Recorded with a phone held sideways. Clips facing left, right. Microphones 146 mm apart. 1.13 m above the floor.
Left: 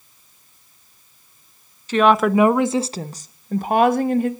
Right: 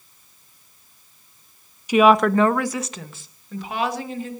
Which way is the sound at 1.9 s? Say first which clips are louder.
Even; 15° right (ahead or behind).